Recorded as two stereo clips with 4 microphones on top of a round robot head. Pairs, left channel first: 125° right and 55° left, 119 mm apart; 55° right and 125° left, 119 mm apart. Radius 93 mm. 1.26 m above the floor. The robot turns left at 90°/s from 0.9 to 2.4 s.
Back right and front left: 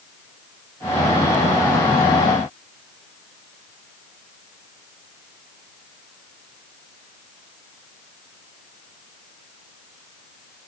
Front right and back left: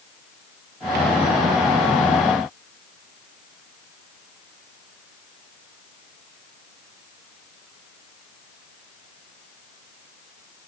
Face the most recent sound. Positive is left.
No sound to turn to.